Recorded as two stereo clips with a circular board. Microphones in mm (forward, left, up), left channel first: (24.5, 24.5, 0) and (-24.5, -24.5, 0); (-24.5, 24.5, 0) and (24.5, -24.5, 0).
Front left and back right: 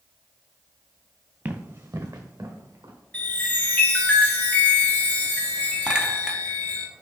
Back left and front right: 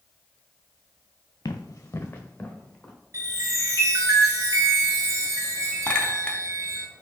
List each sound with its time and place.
1.4 s running footsteps: 165° left, 0.8 m; by 2.9 s 145° right, 1.9 m
3.1 s a chime: 20° right, 1.3 m
5.9 s a clink: 175° left, 0.6 m